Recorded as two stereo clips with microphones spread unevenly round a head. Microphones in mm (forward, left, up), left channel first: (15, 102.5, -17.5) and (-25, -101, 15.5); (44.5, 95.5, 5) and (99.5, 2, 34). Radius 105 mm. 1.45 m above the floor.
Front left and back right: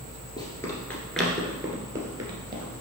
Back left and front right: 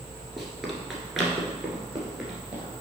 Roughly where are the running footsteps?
Ahead.